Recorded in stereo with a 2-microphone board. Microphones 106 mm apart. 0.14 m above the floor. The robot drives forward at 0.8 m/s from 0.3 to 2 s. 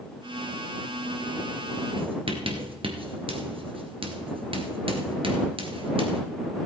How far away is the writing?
About 1.7 m.